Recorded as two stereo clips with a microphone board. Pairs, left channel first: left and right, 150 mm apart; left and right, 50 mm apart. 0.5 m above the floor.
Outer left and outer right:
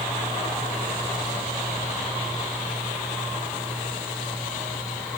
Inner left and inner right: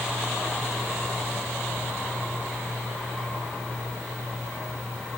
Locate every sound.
Only background noise.